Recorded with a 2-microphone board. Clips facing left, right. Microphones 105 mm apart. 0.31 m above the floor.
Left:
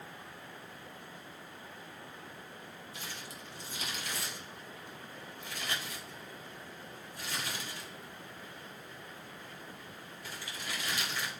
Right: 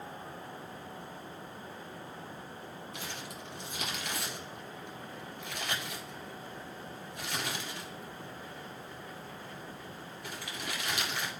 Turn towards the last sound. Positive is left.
turn(degrees=-65)  # may be behind; listen again after turning